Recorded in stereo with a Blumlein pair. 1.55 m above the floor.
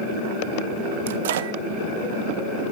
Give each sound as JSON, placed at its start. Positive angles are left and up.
{"t": 1.1, "sound": "a microwave", "azimuth_deg": -60, "distance_m": 0.8}